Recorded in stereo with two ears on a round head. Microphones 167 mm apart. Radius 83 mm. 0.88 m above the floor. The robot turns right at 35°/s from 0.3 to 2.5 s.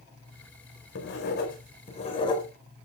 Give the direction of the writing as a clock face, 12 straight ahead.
8 o'clock.